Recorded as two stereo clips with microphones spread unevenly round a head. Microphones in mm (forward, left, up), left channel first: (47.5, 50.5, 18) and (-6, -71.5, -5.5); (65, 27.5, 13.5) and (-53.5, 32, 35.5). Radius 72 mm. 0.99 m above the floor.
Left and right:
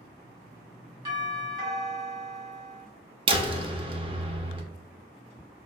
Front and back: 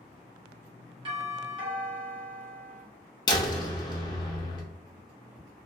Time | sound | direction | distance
1.1 | a doorbell | 145° right | 1.6 m
3.3 | a door slam | 60° right | 0.6 m